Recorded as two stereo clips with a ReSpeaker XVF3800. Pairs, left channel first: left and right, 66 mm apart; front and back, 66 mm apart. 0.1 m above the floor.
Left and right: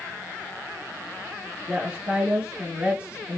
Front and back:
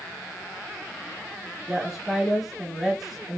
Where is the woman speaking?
95° right, 1.1 m.